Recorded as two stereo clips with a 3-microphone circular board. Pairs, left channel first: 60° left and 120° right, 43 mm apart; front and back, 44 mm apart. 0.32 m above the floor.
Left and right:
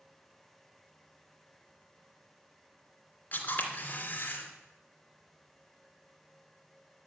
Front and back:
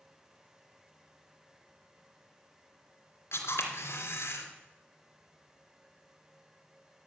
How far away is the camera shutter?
About 2.5 m.